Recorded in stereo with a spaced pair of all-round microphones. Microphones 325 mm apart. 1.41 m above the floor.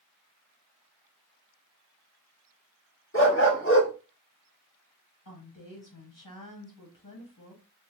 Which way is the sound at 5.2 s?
75° left (ahead or behind).